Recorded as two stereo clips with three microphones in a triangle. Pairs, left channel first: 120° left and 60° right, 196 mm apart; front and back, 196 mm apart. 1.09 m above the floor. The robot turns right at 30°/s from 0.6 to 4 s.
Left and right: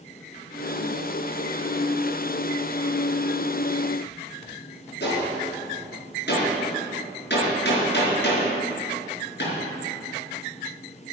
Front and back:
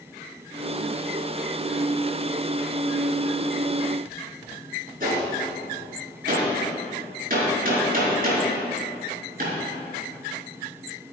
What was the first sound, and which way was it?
A gunshot, 140° left.